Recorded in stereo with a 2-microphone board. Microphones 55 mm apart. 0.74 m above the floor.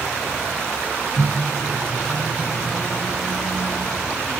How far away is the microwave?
About 3.5 m.